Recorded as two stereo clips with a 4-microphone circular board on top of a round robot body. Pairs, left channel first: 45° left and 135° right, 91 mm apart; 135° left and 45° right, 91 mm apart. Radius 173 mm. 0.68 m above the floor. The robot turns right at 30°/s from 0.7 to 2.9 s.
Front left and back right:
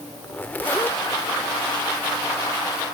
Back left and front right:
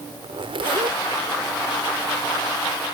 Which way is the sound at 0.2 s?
30° right.